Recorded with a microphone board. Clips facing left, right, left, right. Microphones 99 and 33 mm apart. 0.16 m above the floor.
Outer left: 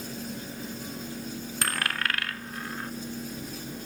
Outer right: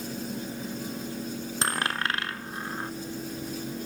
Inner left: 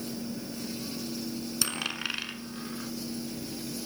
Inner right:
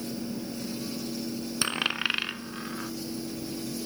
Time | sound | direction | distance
1.6 | a dropped coin | 25° right (ahead or behind) | 0.6 m